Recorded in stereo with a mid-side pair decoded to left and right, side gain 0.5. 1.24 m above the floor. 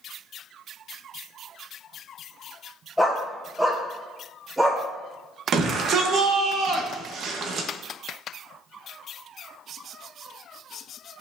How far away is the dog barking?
About 2.5 m.